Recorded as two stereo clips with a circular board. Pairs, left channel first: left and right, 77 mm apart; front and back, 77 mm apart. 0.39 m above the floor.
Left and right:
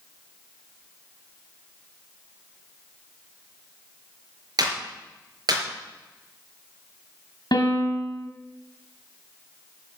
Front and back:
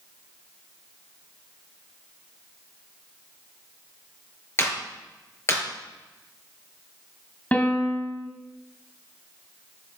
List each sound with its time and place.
4.6 s a clap: 60° right, 4.5 m
7.5 s a piano: 70° left, 2 m